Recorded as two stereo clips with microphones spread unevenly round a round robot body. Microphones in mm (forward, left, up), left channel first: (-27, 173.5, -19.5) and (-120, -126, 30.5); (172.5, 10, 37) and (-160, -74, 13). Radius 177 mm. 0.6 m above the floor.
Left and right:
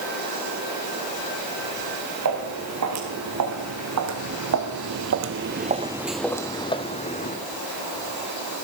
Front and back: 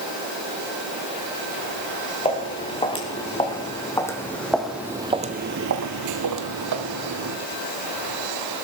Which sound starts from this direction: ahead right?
Footsteps, at 2.2 s.